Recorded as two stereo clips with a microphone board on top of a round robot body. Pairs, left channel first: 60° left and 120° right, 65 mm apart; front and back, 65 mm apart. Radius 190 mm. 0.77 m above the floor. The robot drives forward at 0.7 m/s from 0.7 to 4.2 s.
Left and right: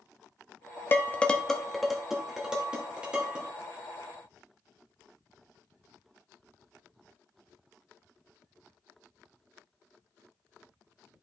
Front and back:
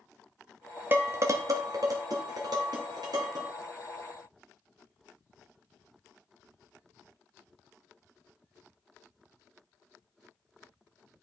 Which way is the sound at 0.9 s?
120° left.